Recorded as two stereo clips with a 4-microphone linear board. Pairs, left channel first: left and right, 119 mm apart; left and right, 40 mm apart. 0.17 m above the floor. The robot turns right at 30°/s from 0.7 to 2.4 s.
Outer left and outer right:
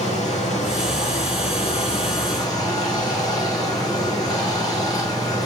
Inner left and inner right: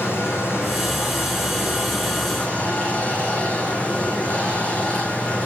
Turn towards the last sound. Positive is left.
turn(degrees=145)